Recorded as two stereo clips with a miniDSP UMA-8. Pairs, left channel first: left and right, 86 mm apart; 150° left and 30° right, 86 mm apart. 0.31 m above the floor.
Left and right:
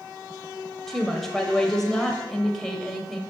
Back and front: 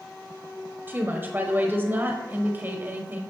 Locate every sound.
0.9 s a woman speaking: 10° left, 1.1 m